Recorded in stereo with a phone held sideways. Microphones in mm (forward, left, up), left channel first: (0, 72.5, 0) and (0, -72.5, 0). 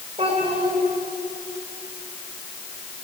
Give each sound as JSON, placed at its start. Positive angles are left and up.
{"t": 0.2, "sound": "a child speaking", "side_deg": -40, "distance_m": 3.5}